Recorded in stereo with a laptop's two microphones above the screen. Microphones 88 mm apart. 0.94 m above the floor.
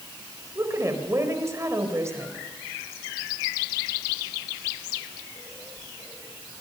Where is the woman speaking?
35° right (ahead or behind), 4 m.